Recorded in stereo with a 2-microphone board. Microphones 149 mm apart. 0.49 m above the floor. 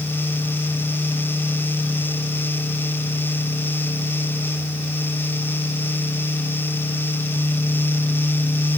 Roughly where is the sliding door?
I don't hear a sliding door.